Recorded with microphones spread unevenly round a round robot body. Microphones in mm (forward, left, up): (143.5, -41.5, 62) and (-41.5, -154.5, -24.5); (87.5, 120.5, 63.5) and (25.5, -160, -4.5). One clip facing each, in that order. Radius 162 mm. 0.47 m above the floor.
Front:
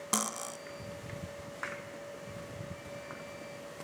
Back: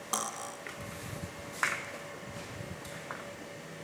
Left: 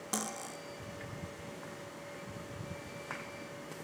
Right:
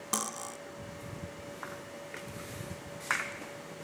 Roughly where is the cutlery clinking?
Ahead right.